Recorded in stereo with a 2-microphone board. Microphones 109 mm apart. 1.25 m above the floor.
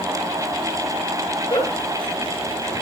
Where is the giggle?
50° left (ahead or behind), 4.5 m.